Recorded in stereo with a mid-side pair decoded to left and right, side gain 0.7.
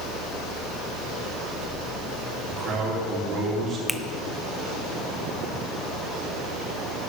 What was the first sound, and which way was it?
A fan, 70° right.